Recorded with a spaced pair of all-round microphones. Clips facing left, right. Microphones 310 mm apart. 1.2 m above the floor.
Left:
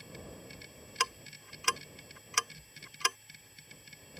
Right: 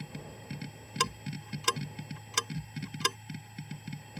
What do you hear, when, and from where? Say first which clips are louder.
0.0 s a machine running: right 3 dB; 65° right (ahead or behind)
1.0 s ticking: right 7 dB; 45° right (ahead or behind)